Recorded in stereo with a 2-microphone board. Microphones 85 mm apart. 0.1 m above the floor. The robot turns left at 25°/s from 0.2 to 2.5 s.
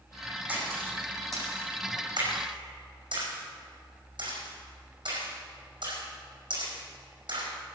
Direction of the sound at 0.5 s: 15° right (ahead or behind).